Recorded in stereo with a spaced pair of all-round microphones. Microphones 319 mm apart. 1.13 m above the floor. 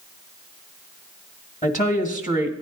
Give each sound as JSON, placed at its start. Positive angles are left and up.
{"t": 1.6, "sound": "a woman speaking", "side_deg": 25, "distance_m": 1.4}